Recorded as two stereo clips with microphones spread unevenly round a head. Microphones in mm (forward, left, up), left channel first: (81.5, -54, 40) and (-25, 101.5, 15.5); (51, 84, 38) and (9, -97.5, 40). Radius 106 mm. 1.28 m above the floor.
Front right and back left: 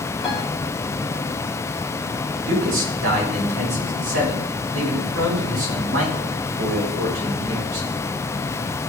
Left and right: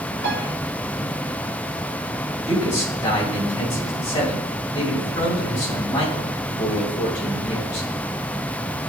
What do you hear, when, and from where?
0.2 s a piano: 145° right, 4.5 m
2.5 s a man speaking: 150° left, 8 m